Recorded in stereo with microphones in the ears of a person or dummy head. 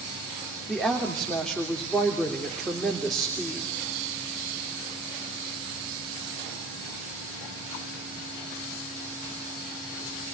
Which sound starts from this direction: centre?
A woman speaking, at 0.7 s.